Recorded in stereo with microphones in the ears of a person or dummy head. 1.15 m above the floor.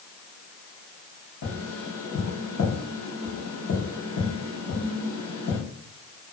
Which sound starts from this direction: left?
Tapping, at 1.4 s.